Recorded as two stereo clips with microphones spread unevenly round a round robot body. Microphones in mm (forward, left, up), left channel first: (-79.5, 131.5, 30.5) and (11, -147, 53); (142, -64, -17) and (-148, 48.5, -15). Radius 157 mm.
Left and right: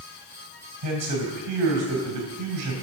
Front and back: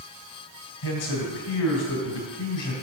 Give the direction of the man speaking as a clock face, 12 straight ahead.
2 o'clock.